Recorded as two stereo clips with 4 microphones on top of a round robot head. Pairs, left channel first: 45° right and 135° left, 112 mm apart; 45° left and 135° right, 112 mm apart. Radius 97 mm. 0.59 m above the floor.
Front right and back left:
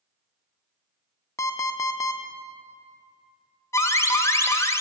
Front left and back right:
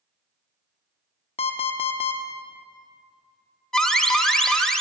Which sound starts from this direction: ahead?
An alarm clock, at 1.4 s.